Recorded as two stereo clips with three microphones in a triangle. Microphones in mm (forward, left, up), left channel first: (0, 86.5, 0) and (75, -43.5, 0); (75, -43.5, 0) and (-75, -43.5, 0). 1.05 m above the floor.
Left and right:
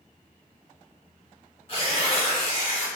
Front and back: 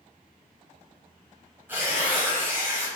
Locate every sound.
1.7 s tearing paper: 110° left, 1.0 m